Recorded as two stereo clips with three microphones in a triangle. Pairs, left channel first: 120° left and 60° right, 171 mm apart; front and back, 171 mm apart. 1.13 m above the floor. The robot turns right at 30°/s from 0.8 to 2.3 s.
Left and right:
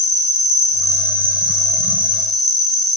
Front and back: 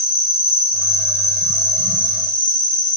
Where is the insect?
15° right, 1.8 m; by 3.0 s 30° left, 1.8 m.